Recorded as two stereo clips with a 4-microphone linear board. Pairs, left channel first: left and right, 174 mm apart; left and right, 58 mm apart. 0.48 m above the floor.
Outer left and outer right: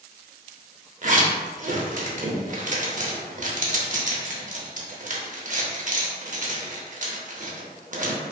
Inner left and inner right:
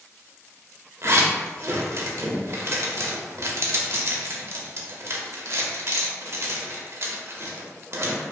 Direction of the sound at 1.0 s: 50° right (ahead or behind).